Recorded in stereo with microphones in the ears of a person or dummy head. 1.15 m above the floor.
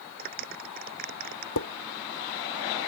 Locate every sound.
0.2 s a clap: 45° right (ahead or behind)
1.6 s dishes clattering: 75° left (ahead or behind)